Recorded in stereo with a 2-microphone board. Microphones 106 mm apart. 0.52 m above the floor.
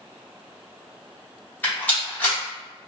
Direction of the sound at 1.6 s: 15° left (ahead or behind).